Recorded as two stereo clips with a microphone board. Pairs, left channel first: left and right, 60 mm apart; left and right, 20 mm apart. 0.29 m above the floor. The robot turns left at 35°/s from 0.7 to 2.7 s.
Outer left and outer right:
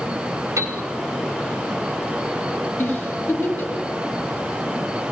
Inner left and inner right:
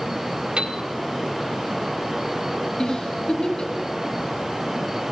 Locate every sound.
0.6 s a piano: 65° right (ahead or behind), 2 m; by 0.8 s 70° right (ahead or behind), 2 m
2.8 s a giggle: 30° left (ahead or behind), 2.5 m